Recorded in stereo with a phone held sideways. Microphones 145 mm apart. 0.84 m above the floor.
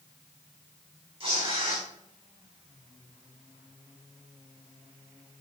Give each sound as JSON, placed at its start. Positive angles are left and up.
{"t": 1.2, "sound": "tearing paper", "side_deg": -45, "distance_m": 3.5}